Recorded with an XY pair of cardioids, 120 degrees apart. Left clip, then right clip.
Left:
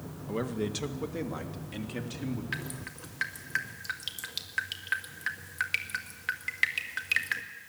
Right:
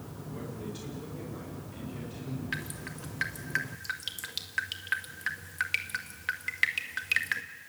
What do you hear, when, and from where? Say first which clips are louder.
0.3 s a man speaking: left 9 dB; 65° left, 1.7 m; by 2.4 s 75° left, 4 m
2.5 s dripping: even; straight ahead, 1.8 m